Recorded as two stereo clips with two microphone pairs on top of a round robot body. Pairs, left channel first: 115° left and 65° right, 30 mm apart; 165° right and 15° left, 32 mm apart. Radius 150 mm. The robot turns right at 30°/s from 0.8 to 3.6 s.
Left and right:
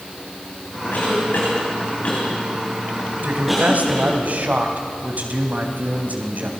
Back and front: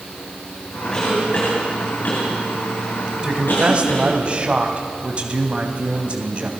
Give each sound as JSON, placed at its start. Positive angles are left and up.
{"t": 0.9, "sound": "a cough", "azimuth_deg": 125, "distance_m": 3.5}
{"t": 3.2, "sound": "a man speaking", "azimuth_deg": -50, "distance_m": 3.5}